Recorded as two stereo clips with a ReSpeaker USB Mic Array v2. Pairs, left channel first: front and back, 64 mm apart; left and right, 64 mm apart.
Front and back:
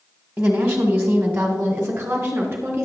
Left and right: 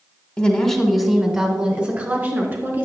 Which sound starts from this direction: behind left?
A woman speaking, at 0.4 s.